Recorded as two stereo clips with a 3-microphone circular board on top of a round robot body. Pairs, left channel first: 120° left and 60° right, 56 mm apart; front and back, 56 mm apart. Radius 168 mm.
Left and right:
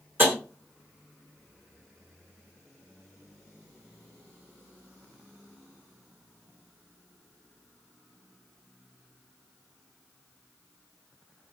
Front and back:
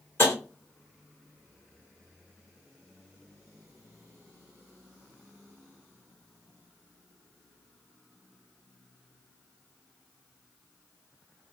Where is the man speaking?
No man speaking in this recording.